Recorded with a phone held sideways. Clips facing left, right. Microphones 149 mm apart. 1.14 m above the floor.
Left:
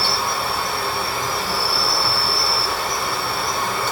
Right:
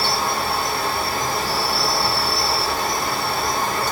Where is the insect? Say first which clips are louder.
Right 1 dB; 40° right (ahead or behind), 1.1 m.